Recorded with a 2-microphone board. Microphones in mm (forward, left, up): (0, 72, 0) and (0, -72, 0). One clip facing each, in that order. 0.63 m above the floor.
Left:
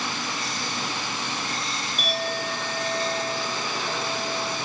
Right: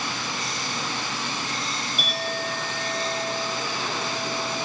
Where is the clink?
5° right (ahead or behind), 9 m.